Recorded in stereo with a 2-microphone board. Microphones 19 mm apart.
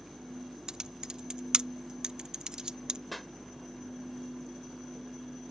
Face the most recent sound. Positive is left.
turn(degrees=5)  # may be behind; listen again after turning